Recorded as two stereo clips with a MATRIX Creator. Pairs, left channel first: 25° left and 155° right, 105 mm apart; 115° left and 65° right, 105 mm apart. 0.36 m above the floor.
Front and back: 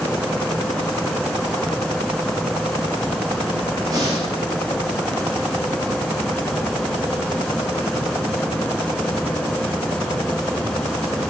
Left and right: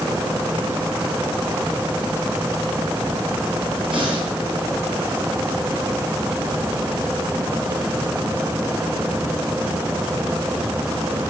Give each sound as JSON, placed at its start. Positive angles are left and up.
{"t": 3.9, "sound": "breathing", "azimuth_deg": -100, "distance_m": 4.0}